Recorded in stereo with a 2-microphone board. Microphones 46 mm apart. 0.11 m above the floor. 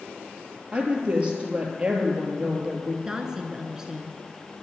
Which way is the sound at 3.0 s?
15° right (ahead or behind).